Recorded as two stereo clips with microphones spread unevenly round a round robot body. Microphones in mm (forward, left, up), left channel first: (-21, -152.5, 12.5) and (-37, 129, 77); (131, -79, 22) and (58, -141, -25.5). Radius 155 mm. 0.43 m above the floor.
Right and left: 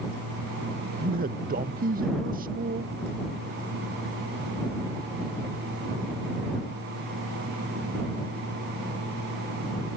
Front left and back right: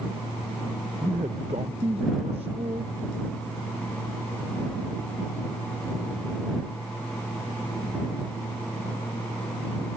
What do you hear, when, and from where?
1.0 s a man speaking: 155° left